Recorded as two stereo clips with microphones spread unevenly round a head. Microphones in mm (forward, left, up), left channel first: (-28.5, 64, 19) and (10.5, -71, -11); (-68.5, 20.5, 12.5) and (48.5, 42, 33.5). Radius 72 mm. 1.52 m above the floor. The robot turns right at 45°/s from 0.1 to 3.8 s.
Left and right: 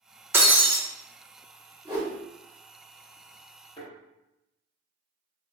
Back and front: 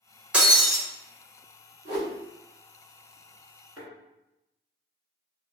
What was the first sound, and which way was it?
Breaking glass, 15° left.